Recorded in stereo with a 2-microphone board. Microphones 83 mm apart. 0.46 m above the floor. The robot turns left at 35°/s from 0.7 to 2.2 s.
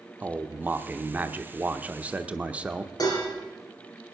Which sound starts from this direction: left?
Dishes clattering, at 3.0 s.